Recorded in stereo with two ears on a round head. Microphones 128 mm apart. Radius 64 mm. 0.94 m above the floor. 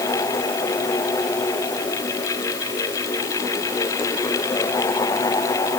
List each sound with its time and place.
Only background noise.